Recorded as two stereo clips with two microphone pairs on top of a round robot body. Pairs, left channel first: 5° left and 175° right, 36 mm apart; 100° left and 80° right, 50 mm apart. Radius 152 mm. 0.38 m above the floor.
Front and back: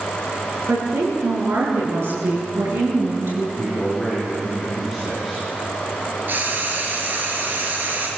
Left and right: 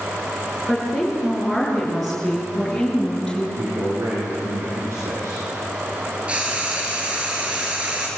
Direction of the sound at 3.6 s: 90° right.